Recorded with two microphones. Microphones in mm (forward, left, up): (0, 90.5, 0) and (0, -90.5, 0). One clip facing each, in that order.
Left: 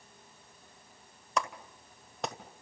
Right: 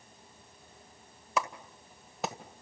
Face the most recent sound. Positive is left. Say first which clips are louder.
# right 1 dB
turn(degrees=-5)  # may be behind; listen again after turning